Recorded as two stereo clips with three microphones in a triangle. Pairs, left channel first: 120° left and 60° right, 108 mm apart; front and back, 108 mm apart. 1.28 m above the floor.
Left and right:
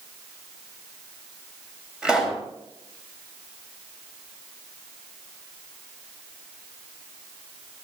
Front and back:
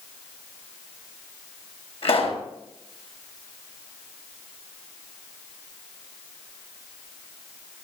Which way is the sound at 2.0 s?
20° left.